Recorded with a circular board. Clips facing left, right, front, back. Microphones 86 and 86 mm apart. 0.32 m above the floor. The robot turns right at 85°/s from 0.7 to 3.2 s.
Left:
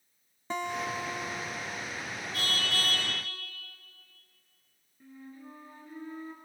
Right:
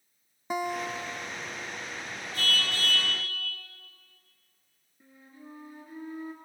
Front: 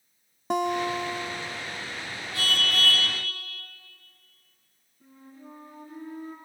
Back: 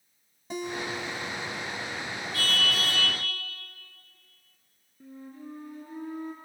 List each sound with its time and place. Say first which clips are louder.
0.5 s a guitar: right 2 dB, front 8 dB; 10° right, 0.7 m; by 1.8 s 85° left, 0.7 m
2.3 s a car horn: right 2 dB, front 1 dB; 65° left, 8 m; by 3.1 s 130° left, 8 m
5.0 s a flute: left 3 dB, back 5 dB; 165° right, 4 m